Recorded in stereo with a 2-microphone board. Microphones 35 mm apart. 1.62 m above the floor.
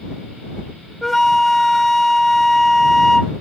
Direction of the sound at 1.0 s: 10° left (ahead or behind).